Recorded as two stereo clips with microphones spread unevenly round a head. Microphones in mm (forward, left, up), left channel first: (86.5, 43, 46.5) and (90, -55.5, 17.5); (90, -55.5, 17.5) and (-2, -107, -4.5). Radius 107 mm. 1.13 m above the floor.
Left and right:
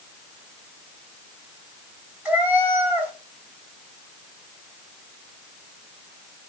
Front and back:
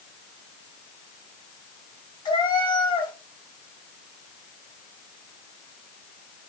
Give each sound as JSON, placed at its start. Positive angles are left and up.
{"t": 2.2, "sound": "a cat meowing", "azimuth_deg": -5, "distance_m": 2.5}